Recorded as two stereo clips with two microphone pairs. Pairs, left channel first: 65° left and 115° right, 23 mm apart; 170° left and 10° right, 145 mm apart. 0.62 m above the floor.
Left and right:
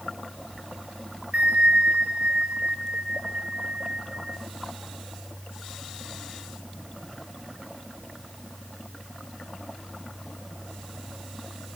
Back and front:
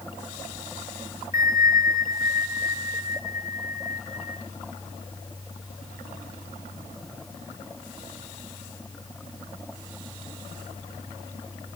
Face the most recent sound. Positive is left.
turn(degrees=-70)